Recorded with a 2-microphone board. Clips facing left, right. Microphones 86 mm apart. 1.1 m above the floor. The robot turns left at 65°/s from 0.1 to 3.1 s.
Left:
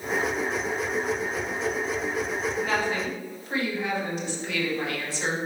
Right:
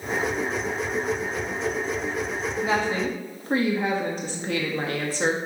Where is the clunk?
I don't hear a clunk.